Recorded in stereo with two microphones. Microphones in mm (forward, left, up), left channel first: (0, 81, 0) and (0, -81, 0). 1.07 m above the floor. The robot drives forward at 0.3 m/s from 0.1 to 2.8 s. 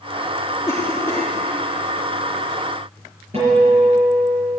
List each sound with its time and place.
0.7 s a cough: 20° left (ahead or behind), 1.6 m; by 1.3 s 15° left (ahead or behind), 1.8 m
3.3 s a guitar: 40° right (ahead or behind), 5 m